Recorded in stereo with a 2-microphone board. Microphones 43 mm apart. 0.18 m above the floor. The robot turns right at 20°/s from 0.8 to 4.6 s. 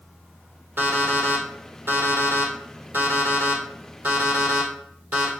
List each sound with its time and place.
0.8 s an alarm clock: 55° right (ahead or behind), 3 m; by 5.3 s 50° right (ahead or behind), 3 m